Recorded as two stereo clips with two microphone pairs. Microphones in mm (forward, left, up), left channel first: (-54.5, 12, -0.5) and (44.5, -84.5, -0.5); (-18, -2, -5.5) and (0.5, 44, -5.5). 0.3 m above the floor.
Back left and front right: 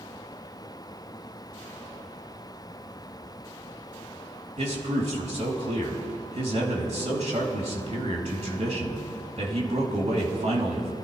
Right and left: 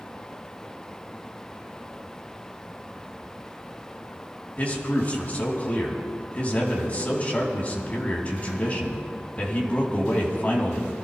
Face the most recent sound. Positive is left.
turn(degrees=-55)